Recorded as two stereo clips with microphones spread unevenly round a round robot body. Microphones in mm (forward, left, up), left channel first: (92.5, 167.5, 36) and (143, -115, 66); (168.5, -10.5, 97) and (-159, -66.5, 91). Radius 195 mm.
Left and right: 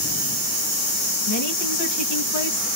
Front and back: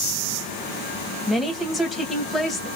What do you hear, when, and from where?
1.3 s a woman speaking: 100° left, 3 m